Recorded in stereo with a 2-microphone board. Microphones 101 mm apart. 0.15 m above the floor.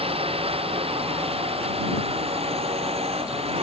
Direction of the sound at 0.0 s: 75° right (ahead or behind).